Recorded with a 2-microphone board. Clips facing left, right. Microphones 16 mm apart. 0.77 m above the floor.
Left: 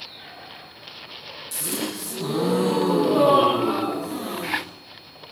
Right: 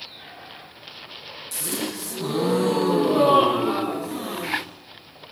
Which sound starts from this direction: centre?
A gasp, at 1.5 s.